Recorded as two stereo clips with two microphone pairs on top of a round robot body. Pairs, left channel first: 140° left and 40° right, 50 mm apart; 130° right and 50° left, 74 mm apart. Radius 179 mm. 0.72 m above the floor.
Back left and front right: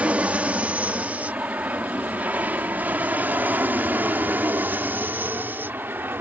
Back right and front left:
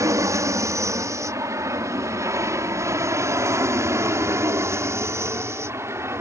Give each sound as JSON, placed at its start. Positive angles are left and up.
{"t": 0.0, "sound": "an aircraft", "azimuth_deg": 5}